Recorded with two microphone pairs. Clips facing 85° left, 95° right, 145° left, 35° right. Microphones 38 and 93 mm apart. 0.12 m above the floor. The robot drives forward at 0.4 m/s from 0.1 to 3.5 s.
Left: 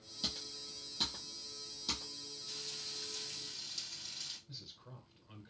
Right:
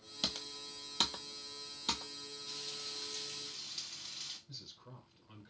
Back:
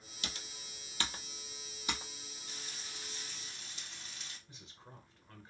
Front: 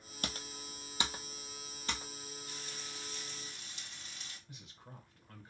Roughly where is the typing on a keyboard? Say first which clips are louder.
Right 3 dB, front 5 dB; ahead right.